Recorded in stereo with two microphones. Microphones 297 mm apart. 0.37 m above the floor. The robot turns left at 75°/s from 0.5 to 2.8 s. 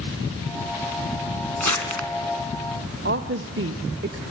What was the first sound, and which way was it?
Crumpling, 70° left (ahead or behind).